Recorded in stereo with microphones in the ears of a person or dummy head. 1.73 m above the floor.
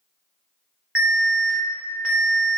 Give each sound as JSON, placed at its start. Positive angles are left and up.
{"t": 0.9, "sound": "an alarm", "side_deg": 0, "distance_m": 0.9}